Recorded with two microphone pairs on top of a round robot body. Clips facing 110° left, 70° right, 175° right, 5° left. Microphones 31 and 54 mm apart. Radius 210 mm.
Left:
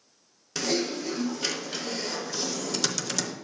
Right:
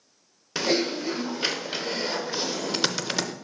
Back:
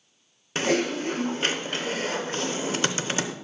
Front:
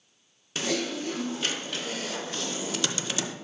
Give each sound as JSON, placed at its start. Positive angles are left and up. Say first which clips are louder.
{"t": 0.6, "sound": "typing on a keyboard", "louder": "right 3 dB, back 5 dB", "azimuth_deg": -130, "distance_m": 0.9}